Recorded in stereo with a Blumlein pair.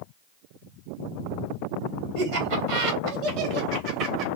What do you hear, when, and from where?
2.1 s laughter: 50° right, 3 m; by 4.3 s 40° right, 1.7 m